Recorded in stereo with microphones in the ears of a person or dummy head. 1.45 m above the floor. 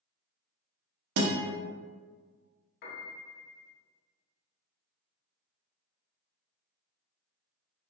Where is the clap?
I don't hear a clap.